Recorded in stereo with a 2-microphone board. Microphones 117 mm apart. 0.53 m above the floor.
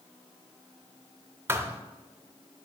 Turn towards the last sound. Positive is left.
turn(degrees=-20)  # may be behind; listen again after turning